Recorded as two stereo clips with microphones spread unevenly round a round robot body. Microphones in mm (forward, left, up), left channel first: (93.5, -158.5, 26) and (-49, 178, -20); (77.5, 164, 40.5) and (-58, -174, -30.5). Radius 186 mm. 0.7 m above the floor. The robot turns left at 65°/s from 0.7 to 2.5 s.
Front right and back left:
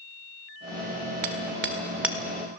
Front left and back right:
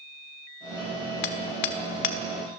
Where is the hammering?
80° left, 1.7 m; by 2.2 s 20° left, 1.7 m.